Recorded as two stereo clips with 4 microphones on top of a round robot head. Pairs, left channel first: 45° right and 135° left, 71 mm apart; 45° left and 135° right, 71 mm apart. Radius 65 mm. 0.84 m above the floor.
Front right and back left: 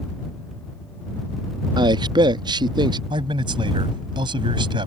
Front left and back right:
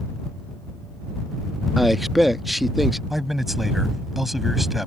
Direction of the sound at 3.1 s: 135° left.